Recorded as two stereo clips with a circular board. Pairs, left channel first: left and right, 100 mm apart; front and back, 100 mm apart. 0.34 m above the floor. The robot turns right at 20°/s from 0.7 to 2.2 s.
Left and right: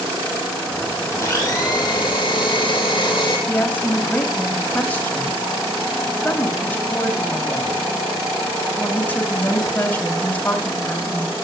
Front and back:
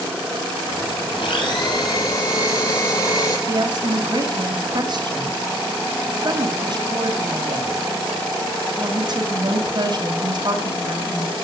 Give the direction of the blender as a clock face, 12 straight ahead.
11 o'clock.